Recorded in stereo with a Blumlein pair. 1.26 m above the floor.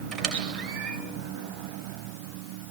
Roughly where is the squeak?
Ahead.